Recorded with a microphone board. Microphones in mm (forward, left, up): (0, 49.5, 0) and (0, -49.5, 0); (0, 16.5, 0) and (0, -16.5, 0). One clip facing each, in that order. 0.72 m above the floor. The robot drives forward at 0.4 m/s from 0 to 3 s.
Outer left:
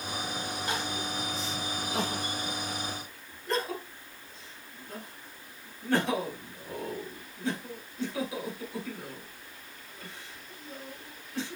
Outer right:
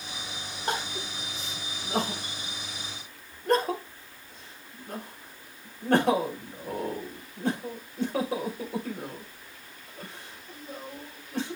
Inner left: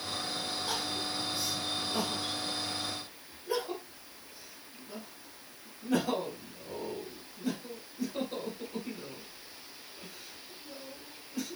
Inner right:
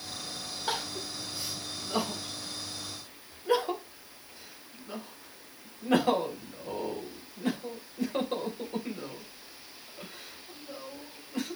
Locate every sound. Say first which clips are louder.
0.7 s crying: outer right 4 dB, inner right 4 dB; 40° right (ahead or behind), 4 m; by 11.6 s 50° right (ahead or behind), 3.5 m